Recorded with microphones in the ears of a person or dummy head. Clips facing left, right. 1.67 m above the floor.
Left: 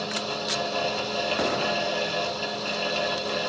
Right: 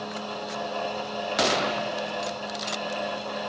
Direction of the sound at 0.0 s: 55° left (ahead or behind).